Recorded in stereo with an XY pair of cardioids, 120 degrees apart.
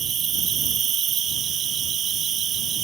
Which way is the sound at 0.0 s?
45° right.